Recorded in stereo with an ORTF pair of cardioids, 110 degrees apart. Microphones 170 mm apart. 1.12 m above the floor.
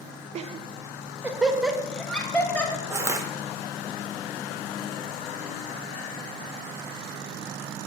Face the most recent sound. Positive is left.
turn(degrees=-15)